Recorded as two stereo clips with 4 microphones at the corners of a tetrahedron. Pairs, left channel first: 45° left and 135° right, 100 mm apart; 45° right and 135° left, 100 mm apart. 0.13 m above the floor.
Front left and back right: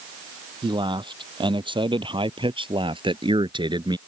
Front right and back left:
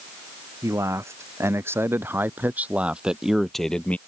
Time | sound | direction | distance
0.6 | a man speaking | 165° right | ?